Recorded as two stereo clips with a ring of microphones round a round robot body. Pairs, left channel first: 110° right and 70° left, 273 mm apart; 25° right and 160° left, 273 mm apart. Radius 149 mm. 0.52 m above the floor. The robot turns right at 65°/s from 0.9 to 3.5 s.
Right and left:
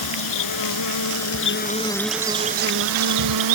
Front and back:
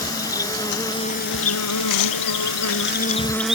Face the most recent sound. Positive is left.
turn(degrees=70)